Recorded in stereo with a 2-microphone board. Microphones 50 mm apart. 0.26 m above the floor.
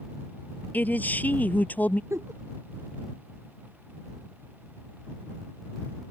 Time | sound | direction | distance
0.7 | a man speaking | 35° left (ahead or behind) | ?
2.1 | a giggle | 70° right (ahead or behind) | ?